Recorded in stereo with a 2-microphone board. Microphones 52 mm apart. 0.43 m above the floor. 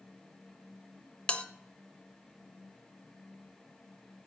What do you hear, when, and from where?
1.3 s a bell: 20° left (ahead or behind), 0.7 m